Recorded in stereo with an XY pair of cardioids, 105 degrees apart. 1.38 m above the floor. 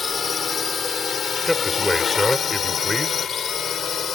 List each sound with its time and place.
0.0 s a drone: 40° left; by 4.2 s 55° left
1.5 s a man speaking: 5° left